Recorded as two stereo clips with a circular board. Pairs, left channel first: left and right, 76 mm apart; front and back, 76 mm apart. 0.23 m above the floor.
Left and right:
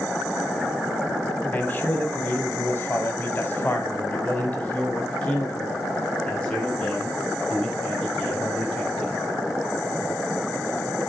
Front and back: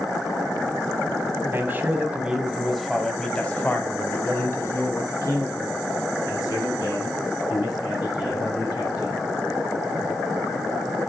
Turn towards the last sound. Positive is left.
turn(degrees=10)